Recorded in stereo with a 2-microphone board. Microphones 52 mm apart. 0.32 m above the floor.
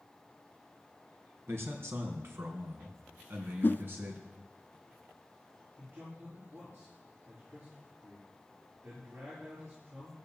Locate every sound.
1.5 s a man speaking: 55° right (ahead or behind), 2.5 m; by 4.3 s 40° right (ahead or behind), 4 m
3.6 s a whoosh: 45° left (ahead or behind), 0.5 m
5.8 s a man speaking: 35° right (ahead or behind), 6.5 m